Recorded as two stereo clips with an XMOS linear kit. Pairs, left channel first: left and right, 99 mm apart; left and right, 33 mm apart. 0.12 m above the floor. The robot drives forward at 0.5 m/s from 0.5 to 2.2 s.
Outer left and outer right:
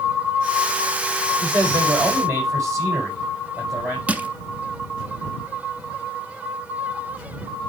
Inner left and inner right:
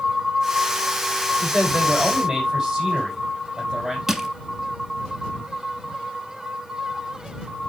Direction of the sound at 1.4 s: 30° right (ahead or behind).